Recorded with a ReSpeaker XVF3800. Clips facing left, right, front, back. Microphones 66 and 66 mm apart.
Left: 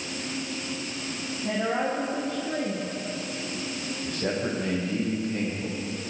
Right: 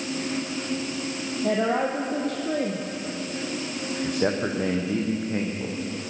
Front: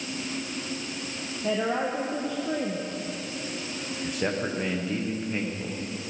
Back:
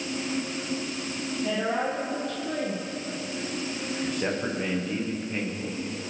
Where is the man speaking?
80° right, 6.5 m.